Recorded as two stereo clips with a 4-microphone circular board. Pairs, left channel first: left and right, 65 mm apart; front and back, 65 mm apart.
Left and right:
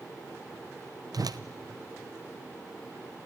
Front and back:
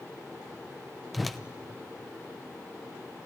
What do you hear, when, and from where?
1.1 s a whoosh: 90° right, 0.8 m